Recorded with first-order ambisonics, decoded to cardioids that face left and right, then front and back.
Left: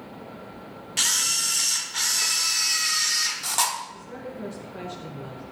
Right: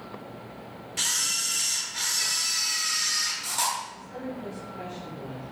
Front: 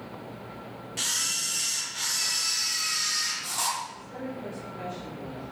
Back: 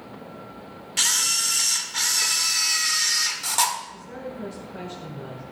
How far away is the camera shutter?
About 1.2 m.